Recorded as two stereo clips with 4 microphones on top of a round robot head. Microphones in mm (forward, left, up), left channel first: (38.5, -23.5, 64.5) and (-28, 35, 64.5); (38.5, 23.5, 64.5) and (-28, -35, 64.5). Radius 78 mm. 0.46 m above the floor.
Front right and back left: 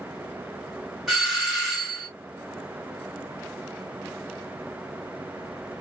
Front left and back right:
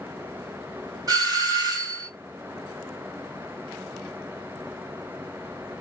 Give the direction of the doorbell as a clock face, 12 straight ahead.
4 o'clock.